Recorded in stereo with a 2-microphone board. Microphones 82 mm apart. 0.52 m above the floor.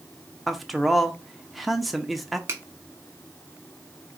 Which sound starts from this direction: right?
A finger snap, at 2.5 s.